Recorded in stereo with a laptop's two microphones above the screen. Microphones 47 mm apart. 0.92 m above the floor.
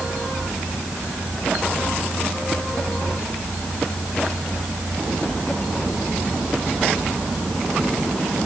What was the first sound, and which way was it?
Only background noise.